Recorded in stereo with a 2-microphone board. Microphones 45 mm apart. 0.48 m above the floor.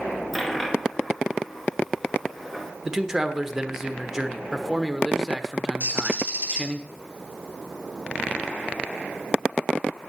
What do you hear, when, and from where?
0.3 s a dropped coin: 5° left (ahead or behind), 1.8 m
2.9 s a man speaking: 15° right (ahead or behind), 1.1 m
5.8 s a bird: 40° right (ahead or behind), 3 m